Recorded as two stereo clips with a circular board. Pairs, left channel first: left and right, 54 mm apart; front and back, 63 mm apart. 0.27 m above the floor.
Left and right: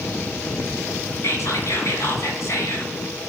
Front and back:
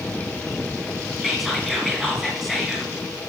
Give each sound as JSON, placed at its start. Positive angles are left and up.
{"t": 1.2, "sound": "whispering", "azimuth_deg": 90, "distance_m": 1.8}